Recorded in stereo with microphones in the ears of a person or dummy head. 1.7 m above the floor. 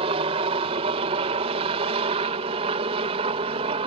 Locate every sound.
0.0 s a helicopter: 35° right (ahead or behind); by 3.9 s 30° right (ahead or behind)